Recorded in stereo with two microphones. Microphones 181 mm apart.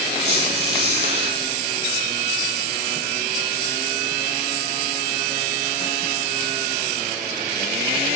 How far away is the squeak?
About 7.5 m.